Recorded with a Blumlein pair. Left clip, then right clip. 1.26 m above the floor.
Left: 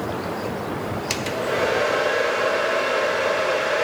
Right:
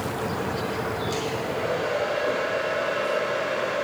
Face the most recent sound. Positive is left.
turn(degrees=40)